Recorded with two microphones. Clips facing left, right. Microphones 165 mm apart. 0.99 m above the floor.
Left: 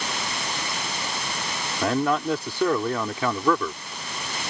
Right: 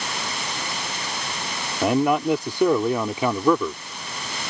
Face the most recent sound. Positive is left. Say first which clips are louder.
# right 4 dB
turn(degrees=-15)  # may be behind; listen again after turning